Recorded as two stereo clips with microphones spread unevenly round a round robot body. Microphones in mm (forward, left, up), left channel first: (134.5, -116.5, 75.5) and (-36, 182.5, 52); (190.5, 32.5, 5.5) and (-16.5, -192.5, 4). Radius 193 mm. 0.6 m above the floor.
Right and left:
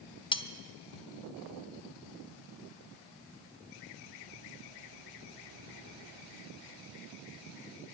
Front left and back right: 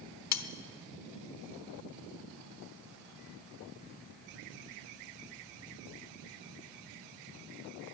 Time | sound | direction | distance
0.3 | cutlery clinking | 15° left | 1.1 m